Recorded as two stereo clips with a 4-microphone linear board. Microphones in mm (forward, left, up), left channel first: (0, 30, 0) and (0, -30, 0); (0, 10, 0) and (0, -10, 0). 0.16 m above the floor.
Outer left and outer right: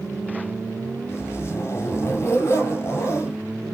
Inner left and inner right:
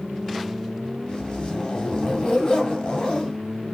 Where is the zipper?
45° left (ahead or behind), 2 m.